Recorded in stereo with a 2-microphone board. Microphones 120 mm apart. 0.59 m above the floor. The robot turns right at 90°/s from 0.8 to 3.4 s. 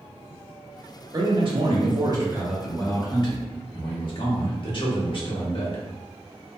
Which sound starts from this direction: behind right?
A man speaking, at 1.1 s.